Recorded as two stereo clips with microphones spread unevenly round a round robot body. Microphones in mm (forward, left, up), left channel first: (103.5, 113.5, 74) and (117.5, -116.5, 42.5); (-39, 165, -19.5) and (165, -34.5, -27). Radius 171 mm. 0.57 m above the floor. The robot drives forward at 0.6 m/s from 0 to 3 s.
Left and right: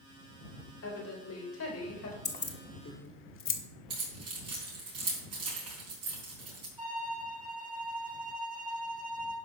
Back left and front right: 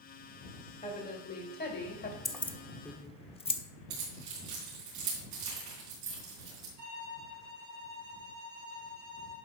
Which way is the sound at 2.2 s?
45° left.